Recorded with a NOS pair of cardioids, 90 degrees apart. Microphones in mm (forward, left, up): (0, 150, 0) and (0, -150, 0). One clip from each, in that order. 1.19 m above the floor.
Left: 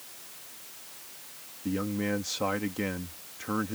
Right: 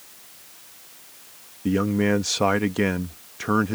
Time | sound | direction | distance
1.6 | a man speaking | 60° right | ?